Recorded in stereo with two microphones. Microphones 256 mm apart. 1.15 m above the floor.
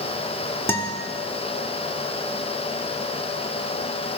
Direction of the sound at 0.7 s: 10° left (ahead or behind).